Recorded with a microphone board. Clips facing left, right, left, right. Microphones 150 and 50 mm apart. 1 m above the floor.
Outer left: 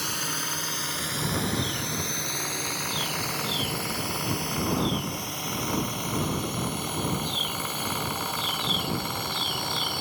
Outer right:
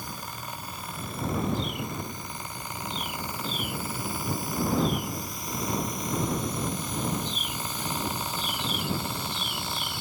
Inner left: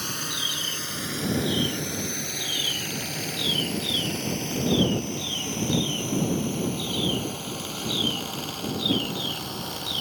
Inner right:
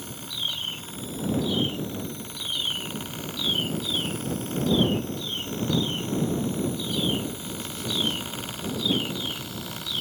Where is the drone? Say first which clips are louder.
Outer left 4 dB, inner left 3 dB; 85° left; by 10.0 s 60° left (ahead or behind).